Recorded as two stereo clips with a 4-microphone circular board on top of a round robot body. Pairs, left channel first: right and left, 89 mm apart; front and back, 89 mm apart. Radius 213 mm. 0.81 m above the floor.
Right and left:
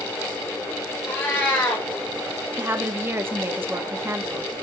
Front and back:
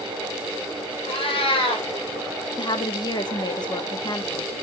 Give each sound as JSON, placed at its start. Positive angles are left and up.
{"t": 1.1, "sound": "a cat meowing", "azimuth_deg": -20, "distance_m": 1.2}
{"t": 2.6, "sound": "a woman speaking", "azimuth_deg": 25, "distance_m": 1.3}